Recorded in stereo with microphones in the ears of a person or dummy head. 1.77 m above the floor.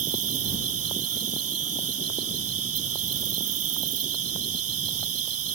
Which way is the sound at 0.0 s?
80° right.